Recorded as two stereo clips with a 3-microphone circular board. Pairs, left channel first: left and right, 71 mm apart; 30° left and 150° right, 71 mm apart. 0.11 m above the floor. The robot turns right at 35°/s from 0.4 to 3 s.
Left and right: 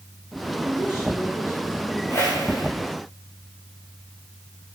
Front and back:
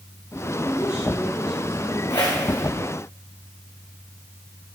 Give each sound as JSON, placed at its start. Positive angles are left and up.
{"t": 0.5, "sound": "a woman speaking", "azimuth_deg": -35, "distance_m": 6.0}
{"t": 2.1, "sound": "a whoosh", "azimuth_deg": 35, "distance_m": 3.5}